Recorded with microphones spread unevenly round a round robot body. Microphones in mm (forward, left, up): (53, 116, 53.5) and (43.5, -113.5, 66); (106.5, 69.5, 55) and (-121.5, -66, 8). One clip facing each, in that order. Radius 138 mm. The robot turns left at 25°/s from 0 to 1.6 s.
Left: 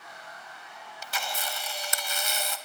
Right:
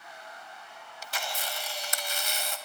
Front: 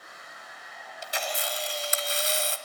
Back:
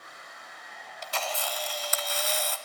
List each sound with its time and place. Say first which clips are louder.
1.0 s a camera shutter: left 1 dB, front 1 dB; 110° left, 1.2 m; by 2.6 s 95° left, 1.2 m